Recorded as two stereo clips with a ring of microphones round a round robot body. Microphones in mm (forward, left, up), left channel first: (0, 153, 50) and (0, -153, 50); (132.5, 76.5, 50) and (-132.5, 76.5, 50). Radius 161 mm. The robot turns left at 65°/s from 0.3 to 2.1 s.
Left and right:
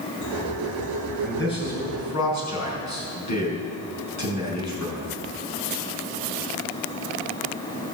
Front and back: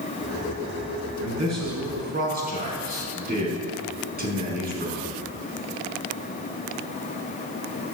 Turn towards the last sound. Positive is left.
turn(degrees=125)